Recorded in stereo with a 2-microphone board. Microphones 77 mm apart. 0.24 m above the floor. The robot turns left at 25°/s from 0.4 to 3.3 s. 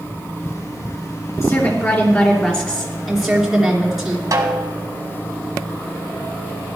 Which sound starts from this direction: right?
A snare drum, at 4.3 s.